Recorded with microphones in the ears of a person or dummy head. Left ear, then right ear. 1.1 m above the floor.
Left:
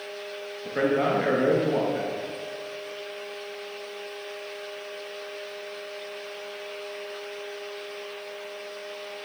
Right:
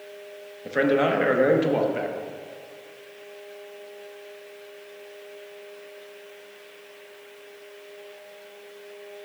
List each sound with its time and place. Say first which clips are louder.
0.7 s a man speaking: right 3 dB; 20° right (ahead or behind), 0.7 m